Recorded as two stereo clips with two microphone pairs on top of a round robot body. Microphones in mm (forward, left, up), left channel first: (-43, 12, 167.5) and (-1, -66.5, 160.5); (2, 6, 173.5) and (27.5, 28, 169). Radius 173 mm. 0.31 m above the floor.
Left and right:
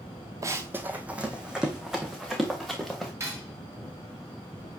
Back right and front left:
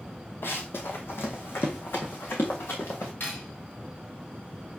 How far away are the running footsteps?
About 0.7 m.